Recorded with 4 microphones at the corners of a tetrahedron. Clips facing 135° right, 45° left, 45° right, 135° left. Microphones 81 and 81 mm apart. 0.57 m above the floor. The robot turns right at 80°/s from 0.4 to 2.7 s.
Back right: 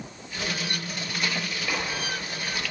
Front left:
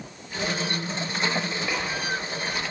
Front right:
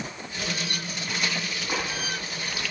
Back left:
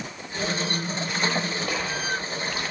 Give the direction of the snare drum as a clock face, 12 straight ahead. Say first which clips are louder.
Back right 1 dB, front right 2 dB; 8 o'clock.